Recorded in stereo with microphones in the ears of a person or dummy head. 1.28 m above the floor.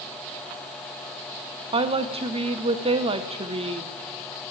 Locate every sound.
1.7 s a woman speaking: 25° right (ahead or behind), 0.9 m